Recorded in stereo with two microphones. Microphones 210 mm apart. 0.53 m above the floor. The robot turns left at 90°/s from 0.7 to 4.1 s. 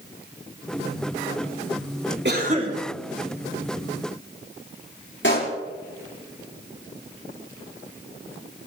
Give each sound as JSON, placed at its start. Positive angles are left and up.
{"t": 2.2, "sound": "a cough", "azimuth_deg": -120, "distance_m": 5.0}
{"t": 5.2, "sound": "a pop", "side_deg": 65, "distance_m": 5.5}